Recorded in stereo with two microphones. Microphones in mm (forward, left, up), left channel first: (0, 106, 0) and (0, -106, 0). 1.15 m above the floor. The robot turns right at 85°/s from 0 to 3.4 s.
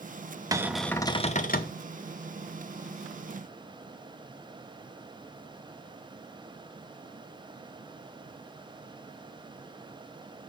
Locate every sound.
0.5 s a cupboard door: 25° right, 0.8 m; by 1.8 s 85° left, 0.8 m